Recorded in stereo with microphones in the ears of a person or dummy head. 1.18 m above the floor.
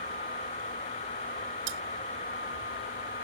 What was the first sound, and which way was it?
Cutlery clinking, 70° right (ahead or behind).